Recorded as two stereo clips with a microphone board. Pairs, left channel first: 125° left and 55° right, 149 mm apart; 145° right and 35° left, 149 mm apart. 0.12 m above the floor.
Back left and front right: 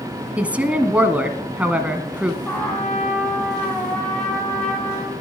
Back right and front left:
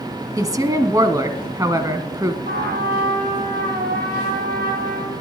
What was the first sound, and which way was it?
A woman speaking, 15° left.